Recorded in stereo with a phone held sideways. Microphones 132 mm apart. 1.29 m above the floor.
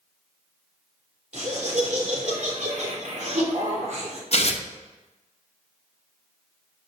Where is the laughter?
65° right (ahead or behind), 3.5 m.